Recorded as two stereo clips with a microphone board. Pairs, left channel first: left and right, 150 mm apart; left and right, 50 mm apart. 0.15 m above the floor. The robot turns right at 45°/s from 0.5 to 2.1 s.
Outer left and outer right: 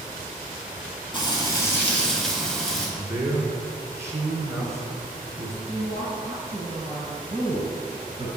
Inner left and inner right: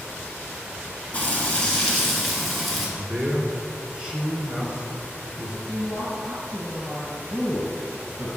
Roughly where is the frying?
Behind left.